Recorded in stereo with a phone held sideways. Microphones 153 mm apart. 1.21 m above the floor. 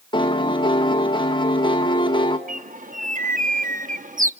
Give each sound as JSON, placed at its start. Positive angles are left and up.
{"t": 0.1, "sound": "a piano", "side_deg": 30, "distance_m": 1.8}
{"t": 2.5, "sound": "a bird", "side_deg": -60, "distance_m": 1.0}